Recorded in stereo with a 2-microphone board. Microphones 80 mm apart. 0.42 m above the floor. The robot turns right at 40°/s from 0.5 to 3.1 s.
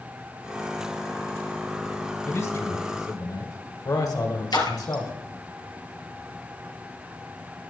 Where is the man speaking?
35° left, 2.5 m; by 5.1 s 70° left, 2.5 m.